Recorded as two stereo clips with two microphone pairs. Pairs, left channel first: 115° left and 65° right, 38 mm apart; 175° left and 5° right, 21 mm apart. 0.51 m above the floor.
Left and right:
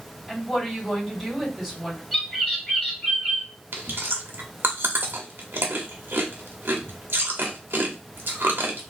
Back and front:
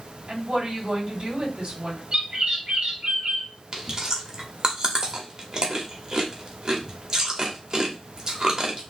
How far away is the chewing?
About 1.0 m.